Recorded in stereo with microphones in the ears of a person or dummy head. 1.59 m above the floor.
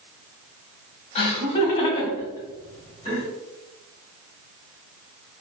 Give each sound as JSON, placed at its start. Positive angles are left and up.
{"t": 1.1, "sound": "laughter", "side_deg": 40, "distance_m": 1.0}